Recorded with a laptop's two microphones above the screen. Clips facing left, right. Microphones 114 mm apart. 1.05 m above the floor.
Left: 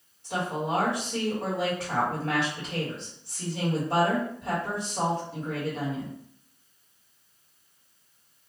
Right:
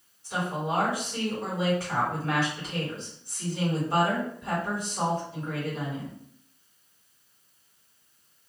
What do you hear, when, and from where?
0.2 s a woman speaking: 65° left (ahead or behind), 1.5 m